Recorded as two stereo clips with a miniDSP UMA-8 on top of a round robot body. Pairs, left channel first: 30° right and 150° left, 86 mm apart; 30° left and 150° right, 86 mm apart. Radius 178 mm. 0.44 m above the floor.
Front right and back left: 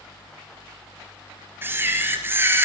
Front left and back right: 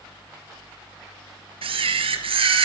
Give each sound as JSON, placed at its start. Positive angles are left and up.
{"t": 1.6, "sound": "a camera shutter", "azimuth_deg": -145, "distance_m": 2.5}